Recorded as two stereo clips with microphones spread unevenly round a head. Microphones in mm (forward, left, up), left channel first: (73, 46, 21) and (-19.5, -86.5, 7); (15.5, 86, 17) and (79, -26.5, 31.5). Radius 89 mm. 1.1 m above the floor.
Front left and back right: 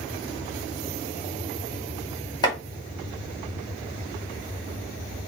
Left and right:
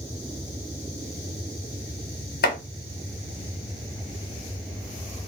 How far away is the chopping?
About 1.2 m.